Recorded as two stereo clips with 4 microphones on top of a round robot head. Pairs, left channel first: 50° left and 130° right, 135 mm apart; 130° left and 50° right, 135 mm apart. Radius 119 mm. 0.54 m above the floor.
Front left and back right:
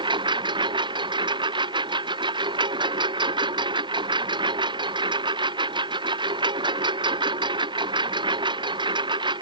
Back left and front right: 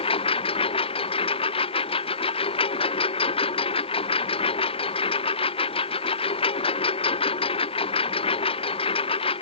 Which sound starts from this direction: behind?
A lawn mower, at 0.0 s.